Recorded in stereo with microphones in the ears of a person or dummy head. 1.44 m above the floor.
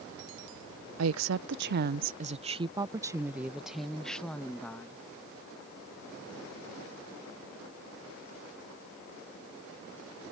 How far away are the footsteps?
I don't hear footsteps.